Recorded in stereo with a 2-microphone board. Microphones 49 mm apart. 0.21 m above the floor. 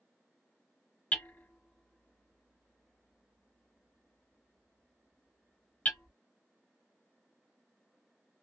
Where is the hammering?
35° left (ahead or behind), 0.9 m.